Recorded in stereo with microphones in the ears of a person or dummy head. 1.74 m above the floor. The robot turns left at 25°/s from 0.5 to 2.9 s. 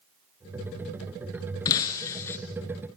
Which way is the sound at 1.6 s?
25° left (ahead or behind).